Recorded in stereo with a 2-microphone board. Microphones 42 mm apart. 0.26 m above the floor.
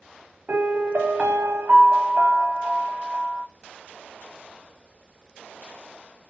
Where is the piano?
40° right (ahead or behind), 0.7 m.